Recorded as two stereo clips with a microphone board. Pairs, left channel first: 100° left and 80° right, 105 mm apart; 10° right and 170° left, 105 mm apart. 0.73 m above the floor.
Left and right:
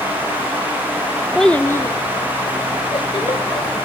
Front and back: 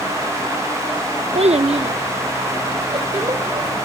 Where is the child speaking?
170° right, 0.5 m; by 3.8 s 135° left, 2.0 m.